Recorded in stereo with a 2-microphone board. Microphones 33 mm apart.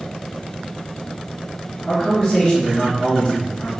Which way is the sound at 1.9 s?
25° left (ahead or behind).